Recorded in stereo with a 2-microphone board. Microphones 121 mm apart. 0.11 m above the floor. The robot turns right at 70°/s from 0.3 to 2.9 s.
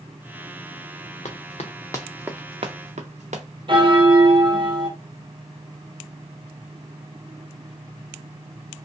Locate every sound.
1.2 s running footsteps: 75° left (ahead or behind), 0.8 m; by 3.4 s 75° right (ahead or behind), 1.0 m
3.7 s a bell: 45° right (ahead or behind), 0.8 m